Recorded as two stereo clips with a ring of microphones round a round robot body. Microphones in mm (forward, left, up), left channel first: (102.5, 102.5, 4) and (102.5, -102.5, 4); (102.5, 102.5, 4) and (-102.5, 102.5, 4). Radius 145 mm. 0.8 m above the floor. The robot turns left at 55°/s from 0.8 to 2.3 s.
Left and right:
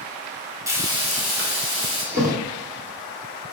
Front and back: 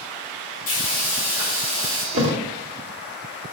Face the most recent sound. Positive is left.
turn(degrees=-160)